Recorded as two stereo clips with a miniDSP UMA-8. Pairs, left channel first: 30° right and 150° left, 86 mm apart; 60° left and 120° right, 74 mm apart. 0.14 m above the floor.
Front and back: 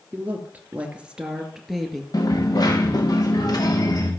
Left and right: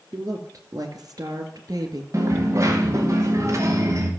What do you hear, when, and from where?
0.1 s a woman speaking: 145° right, 2 m; by 2.0 s 115° right, 2 m
2.1 s a dropped coin: 70° right, 3 m